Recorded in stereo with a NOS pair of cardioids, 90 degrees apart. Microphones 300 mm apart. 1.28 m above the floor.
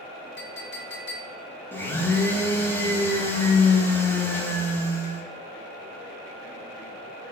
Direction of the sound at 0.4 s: 35° left.